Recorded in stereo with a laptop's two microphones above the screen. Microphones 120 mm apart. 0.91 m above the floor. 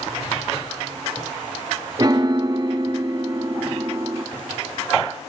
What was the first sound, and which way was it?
A piano, 35° right (ahead or behind).